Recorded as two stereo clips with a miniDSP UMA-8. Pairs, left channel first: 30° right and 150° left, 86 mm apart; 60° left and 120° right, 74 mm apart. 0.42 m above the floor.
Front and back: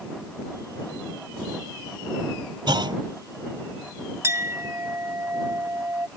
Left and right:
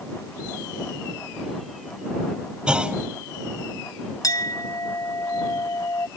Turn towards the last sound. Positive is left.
turn(degrees=95)